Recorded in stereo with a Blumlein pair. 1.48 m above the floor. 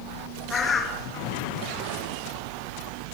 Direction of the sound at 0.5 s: 20° left.